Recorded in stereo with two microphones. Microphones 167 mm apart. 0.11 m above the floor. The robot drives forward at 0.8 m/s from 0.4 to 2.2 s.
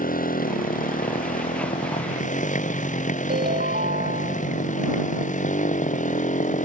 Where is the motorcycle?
60° left (ahead or behind); by 6.7 s 50° left (ahead or behind).